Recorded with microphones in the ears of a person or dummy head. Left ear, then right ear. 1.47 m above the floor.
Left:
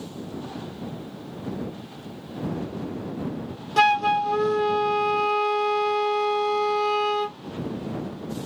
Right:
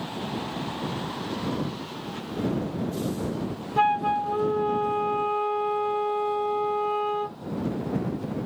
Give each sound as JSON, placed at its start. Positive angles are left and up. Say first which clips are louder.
{"t": 3.8, "sound": "a flute", "louder": "left 3 dB", "side_deg": 75}